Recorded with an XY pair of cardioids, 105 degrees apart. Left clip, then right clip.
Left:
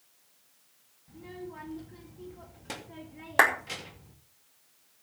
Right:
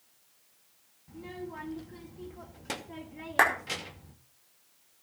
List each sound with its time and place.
1.1 s a child speaking: 25° right, 2.5 m
3.4 s a clap: 15° left, 4.5 m